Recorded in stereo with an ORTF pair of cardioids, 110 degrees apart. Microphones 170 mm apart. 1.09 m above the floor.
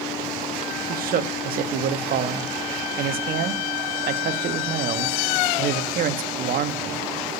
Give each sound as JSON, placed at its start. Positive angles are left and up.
{"t": 0.9, "sound": "a man speaking", "azimuth_deg": -60, "distance_m": 1.6}